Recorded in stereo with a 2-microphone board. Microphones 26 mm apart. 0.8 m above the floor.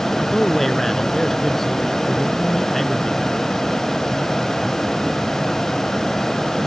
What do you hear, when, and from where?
0.2 s a man speaking: 10° left (ahead or behind)